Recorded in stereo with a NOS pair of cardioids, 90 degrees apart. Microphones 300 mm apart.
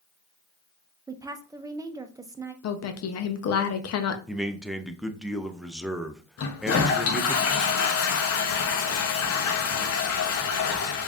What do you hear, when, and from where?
1.1 s a woman speaking: 10° right, 0.6 m
2.6 s a woman speaking: 55° left, 0.8 m
4.3 s a man speaking: straight ahead, 0.5 m
6.4 s a toilet flushing: 55° left, 0.8 m